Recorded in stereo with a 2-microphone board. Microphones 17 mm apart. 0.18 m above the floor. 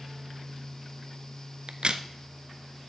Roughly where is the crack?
Right.